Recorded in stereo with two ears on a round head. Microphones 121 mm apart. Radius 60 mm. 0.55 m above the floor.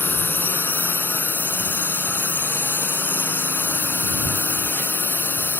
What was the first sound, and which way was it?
A drone, 15° left (ahead or behind).